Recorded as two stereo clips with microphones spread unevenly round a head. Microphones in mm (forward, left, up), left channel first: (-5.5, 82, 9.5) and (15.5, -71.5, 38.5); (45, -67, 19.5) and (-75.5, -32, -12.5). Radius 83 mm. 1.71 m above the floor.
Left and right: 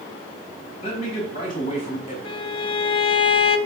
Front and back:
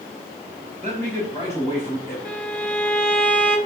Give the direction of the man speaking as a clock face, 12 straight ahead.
11 o'clock.